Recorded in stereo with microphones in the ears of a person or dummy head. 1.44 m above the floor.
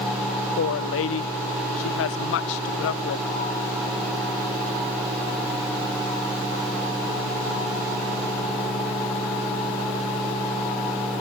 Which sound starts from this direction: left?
A woman speaking, at 0.6 s.